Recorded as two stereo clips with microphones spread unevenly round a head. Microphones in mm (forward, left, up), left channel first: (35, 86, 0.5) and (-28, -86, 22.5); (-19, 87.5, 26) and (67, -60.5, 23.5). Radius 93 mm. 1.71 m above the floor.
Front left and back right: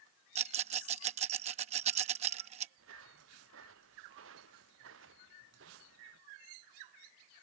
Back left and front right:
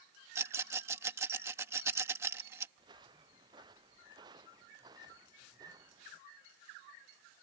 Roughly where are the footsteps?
Behind right.